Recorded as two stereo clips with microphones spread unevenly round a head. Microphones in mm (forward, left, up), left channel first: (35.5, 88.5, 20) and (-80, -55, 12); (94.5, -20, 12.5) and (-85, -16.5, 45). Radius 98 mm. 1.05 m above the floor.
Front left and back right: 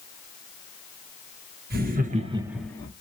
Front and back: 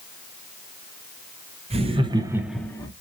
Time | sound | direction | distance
1.7 | laughter | 125° right | 1.1 m